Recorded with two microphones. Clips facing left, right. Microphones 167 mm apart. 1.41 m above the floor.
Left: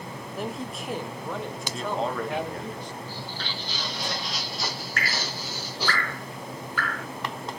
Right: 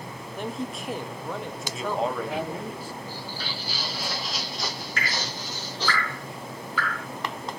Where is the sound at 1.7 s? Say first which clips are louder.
Right 1 dB; 5° right (ahead or behind), 1.3 m.